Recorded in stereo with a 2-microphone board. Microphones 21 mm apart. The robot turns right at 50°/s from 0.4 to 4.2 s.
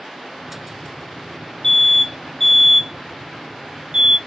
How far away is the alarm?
About 2 m.